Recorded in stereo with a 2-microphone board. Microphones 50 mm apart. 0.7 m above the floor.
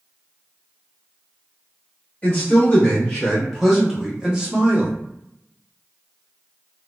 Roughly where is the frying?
No frying in this recording.